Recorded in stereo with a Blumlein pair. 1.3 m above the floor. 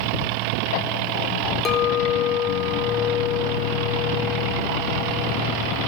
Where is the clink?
25° left, 0.7 m.